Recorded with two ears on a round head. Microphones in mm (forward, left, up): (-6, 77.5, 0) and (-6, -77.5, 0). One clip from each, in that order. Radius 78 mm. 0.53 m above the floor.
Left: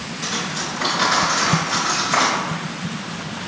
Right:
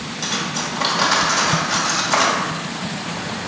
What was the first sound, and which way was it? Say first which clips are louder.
Cutlery clinking: right 2 dB; 30° right (ahead or behind).